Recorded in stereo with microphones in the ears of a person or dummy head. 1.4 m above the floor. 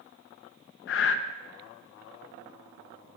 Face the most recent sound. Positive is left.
turn(degrees=65)  # may be behind; listen again after turning